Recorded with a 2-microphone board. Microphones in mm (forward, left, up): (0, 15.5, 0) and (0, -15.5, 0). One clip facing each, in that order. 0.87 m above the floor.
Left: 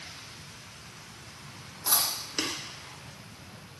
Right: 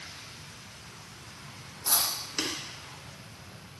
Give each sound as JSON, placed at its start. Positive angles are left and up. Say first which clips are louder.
{"t": 1.9, "sound": "chewing", "louder": "left 1 dB", "side_deg": 20, "distance_m": 0.9}